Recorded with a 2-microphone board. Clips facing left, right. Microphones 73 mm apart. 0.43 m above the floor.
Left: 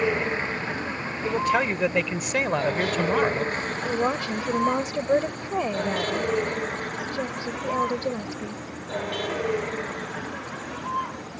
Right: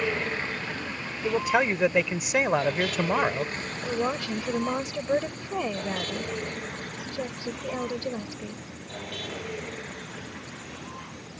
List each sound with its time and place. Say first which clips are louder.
0.0 s a vehicle: left 4 dB; 20° left (ahead or behind); by 11.4 s 65° left (ahead or behind)
1.2 s a man speaking: left 1 dB; 10° right (ahead or behind)
3.8 s a woman speaking: left 2 dB; 20° left (ahead or behind)